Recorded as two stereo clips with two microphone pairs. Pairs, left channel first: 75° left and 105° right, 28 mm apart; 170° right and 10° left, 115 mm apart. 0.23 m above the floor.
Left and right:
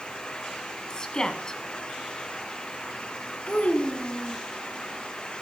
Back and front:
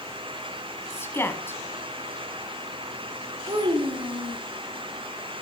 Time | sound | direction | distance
0.9 | a woman speaking | 130° left | 1.5 m
3.5 | a child speaking | 50° left | 1.2 m